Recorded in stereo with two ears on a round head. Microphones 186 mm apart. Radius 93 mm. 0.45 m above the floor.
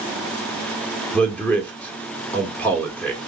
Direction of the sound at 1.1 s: 10° left (ahead or behind).